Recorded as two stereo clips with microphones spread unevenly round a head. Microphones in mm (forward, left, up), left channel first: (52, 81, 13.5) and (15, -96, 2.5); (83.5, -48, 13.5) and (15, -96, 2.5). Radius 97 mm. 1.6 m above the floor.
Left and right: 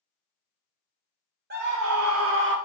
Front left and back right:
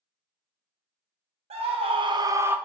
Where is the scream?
150° right, 0.6 m; by 2.6 s 70° right, 0.6 m.